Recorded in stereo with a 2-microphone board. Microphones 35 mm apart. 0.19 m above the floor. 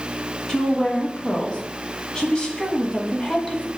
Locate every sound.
0.5 s a woman speaking: 25° left (ahead or behind), 1.3 m